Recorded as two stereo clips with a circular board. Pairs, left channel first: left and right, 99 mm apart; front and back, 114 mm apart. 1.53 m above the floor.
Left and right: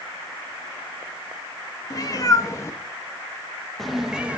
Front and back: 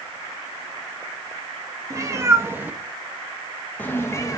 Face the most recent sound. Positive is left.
turn(degrees=-25)